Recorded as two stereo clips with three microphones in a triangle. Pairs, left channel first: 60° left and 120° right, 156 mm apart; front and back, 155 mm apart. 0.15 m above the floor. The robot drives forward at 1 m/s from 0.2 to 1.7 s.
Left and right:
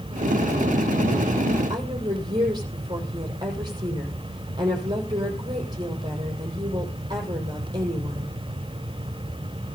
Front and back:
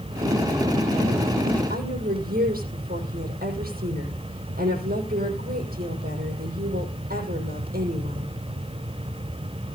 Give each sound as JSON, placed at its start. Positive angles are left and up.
{"t": 1.7, "sound": "a woman speaking", "azimuth_deg": 180, "distance_m": 5.5}